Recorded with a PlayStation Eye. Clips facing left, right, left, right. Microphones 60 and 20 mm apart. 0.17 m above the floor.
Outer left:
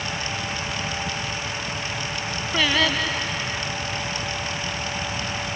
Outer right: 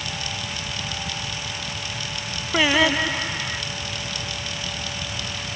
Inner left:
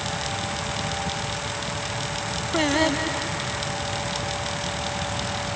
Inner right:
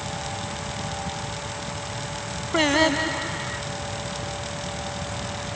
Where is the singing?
15° right (ahead or behind).